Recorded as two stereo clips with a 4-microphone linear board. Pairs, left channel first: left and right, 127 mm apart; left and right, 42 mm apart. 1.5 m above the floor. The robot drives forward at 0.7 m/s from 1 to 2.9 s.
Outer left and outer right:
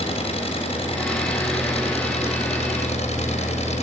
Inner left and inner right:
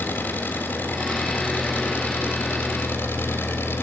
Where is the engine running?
50° left (ahead or behind), 8 m; by 3.9 s 60° left (ahead or behind), 7 m.